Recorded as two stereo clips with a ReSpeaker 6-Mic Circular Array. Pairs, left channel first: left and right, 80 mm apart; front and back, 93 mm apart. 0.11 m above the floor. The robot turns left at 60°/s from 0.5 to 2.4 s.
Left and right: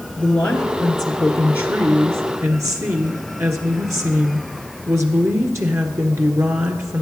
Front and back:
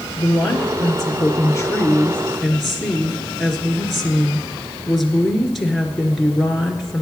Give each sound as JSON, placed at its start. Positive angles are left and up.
{"t": 0.2, "sound": "a woman speaking", "azimuth_deg": 25, "distance_m": 1.4}